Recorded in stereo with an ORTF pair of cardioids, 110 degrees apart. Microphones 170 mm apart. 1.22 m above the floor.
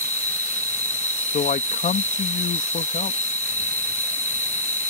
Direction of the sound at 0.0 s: 10° left.